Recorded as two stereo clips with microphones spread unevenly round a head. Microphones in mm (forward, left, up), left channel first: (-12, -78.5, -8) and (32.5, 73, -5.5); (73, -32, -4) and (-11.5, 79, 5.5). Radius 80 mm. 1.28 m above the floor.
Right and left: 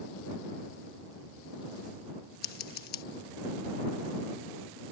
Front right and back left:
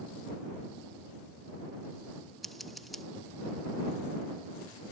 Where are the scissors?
145° right.